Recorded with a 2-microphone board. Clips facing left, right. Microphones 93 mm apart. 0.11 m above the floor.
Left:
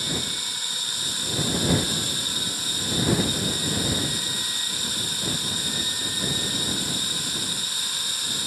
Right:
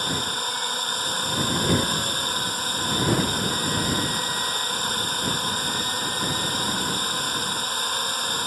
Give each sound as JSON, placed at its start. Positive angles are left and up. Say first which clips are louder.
{"t": 0.0, "sound": "a drone", "louder": "right 5 dB", "side_deg": -50}